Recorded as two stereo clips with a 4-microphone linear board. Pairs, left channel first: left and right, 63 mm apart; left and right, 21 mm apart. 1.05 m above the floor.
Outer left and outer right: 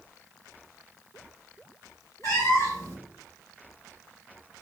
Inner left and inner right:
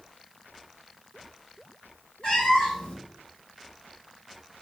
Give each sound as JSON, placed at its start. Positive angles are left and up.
{"t": 2.2, "sound": "a cat meowing", "side_deg": 55, "distance_m": 1.3}